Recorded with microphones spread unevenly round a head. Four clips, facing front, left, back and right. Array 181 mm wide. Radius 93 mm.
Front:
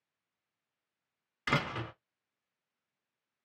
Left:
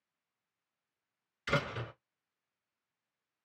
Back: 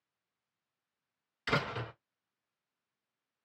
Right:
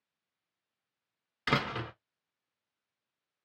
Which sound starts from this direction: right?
A door slam, at 1.5 s.